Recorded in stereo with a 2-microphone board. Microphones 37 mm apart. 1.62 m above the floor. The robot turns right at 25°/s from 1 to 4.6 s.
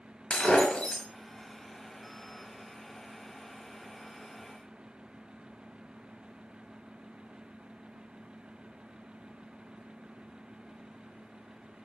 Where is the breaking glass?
20° left (ahead or behind), 5 m.